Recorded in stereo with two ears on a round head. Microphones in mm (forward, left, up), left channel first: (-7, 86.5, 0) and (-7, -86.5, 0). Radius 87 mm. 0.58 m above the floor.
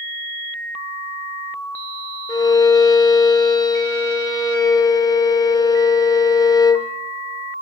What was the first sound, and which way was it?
A violin, 20° left (ahead or behind).